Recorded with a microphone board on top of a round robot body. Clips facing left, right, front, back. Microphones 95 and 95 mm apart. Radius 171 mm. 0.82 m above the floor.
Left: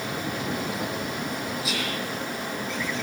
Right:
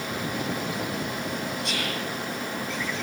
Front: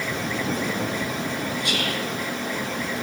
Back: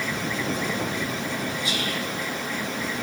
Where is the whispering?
5° left, 0.8 m.